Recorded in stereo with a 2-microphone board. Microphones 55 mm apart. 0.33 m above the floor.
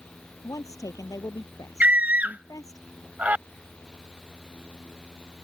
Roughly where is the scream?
Right.